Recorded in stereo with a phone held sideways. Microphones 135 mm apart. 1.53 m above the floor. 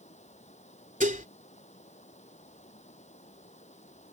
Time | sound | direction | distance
0.0 | running water | 60° left (ahead or behind) | ?
1.0 | dishes clattering | 80° right | ?